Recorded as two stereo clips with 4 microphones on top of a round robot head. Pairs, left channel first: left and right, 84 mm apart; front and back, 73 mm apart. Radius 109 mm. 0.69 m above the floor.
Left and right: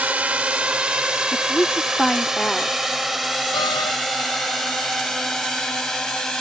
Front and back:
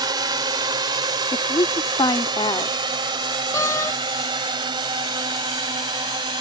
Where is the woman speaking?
5° left.